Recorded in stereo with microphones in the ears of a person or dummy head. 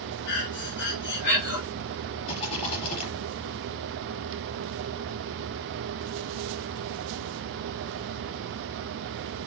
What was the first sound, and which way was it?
Breathing, 65° left (ahead or behind).